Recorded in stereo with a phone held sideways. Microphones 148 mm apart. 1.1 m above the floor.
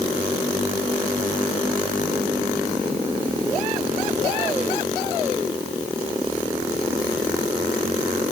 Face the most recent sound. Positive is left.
No sound to turn to.